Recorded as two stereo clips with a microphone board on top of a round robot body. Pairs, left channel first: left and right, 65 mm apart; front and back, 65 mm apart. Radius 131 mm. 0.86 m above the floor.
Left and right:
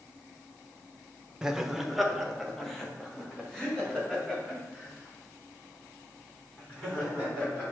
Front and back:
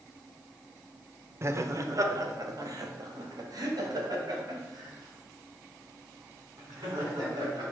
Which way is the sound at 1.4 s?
165° right.